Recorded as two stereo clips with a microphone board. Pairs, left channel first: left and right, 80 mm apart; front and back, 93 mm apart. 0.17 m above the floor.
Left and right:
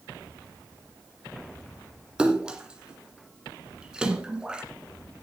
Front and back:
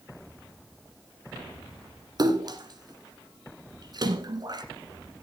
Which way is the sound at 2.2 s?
165° right.